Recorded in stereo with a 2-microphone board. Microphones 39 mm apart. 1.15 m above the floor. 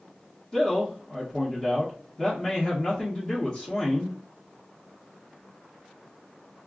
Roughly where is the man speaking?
Left.